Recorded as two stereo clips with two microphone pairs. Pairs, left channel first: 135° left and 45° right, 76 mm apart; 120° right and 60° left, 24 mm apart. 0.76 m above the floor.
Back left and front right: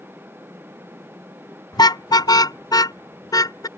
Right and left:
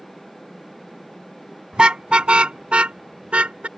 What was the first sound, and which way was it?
A car horn, 110° left.